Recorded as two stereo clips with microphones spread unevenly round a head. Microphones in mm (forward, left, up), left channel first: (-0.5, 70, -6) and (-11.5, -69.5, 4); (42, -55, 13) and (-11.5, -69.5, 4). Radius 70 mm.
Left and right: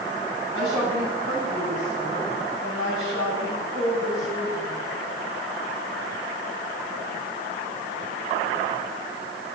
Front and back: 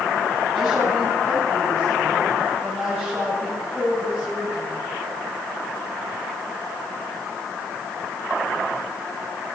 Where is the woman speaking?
75° right, 7 m.